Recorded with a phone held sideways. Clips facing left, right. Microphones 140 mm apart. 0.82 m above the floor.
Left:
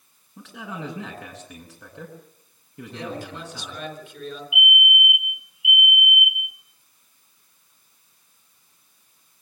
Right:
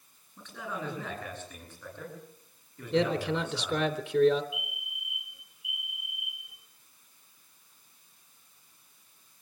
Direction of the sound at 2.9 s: 65° right (ahead or behind).